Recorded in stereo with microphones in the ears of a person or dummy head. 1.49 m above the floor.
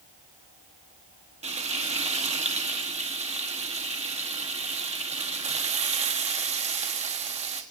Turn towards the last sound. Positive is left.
turn(degrees=-35)  # may be behind; listen again after turning